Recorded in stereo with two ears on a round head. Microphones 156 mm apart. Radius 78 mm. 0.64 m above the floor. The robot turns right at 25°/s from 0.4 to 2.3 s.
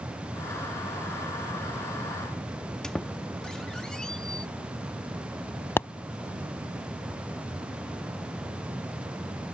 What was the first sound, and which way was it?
A squeak, 5° left (ahead or behind).